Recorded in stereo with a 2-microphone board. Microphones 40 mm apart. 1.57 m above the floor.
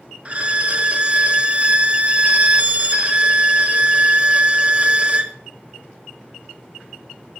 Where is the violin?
35° right (ahead or behind), 0.7 m.